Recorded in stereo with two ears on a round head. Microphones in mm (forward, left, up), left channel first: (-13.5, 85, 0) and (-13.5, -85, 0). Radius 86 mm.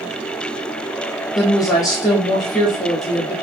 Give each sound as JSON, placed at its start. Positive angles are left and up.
{"t": 1.4, "sound": "a woman speaking", "side_deg": 20, "distance_m": 0.8}